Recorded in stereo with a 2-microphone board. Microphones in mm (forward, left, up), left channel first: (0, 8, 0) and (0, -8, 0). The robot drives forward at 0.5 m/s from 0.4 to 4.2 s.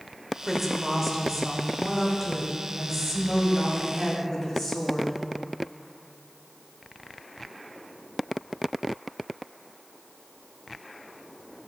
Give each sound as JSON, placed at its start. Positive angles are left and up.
{"t": 0.4, "sound": "a woman speaking", "side_deg": -10, "distance_m": 1.4}